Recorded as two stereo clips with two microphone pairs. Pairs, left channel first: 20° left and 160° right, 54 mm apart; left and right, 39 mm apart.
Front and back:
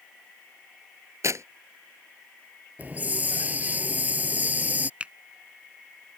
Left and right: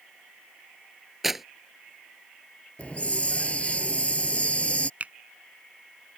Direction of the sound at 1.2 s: 175° right.